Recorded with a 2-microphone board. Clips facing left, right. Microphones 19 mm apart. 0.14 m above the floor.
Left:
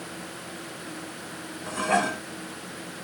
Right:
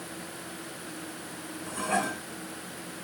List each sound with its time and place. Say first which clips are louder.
1.7 s dishes clattering: left 5 dB; 20° left (ahead or behind), 0.8 m